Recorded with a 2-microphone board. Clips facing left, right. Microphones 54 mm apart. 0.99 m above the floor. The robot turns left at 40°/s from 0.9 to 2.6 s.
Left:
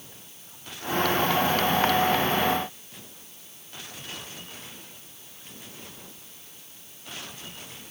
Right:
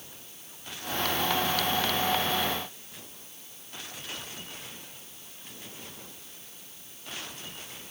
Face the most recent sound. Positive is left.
No sound to turn to.